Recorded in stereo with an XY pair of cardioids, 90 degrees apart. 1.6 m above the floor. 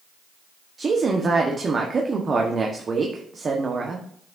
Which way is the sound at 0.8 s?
45° right.